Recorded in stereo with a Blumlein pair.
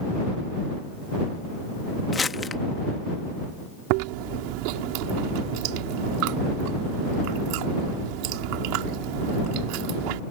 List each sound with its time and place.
2.1 s crumpling: 15° left
3.9 s chewing: 45° right